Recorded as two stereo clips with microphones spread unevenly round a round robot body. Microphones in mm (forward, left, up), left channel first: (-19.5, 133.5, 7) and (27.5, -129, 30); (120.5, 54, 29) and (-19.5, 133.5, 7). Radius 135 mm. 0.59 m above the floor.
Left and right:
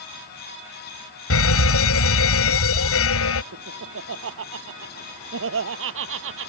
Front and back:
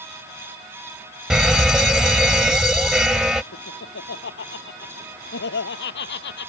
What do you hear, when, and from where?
1.3 s a fire alarm: 65° left
3.5 s laughter: 35° right